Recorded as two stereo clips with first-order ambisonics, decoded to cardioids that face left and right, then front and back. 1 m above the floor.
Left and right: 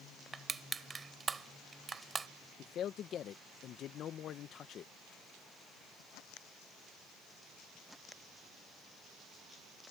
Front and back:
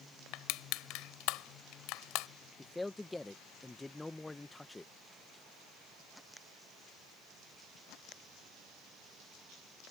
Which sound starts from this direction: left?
A man speaking, at 2.6 s.